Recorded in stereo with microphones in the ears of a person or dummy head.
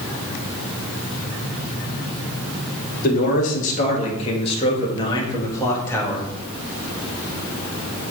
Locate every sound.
3.0 s a man speaking: 50° left (ahead or behind), 3 m; by 6.2 s 10° left (ahead or behind), 2.5 m